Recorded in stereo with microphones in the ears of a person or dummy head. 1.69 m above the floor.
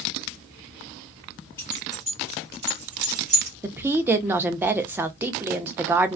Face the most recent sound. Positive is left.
turn(degrees=-10)  # may be behind; listen again after turning